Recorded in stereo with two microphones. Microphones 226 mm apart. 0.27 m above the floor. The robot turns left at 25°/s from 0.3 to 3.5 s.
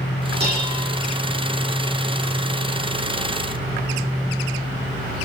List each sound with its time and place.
0.4 s dishes clattering: 45° right (ahead or behind), 8.5 m; by 0.9 s 55° right (ahead or behind), 8.5 m